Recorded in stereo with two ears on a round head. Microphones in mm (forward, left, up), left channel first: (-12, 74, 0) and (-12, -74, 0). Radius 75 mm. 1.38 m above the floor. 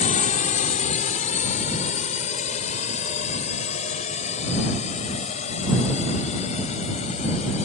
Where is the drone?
45° left (ahead or behind); by 7.7 s 40° left (ahead or behind).